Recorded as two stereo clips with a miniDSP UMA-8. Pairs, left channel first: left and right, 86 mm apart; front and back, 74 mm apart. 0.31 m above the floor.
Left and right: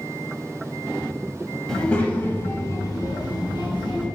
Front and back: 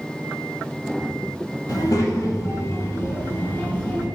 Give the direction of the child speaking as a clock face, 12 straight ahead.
12 o'clock.